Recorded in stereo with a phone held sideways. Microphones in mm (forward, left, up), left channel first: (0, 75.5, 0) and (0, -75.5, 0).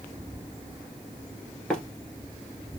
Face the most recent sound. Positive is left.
turn(degrees=5)  # may be behind; listen again after turning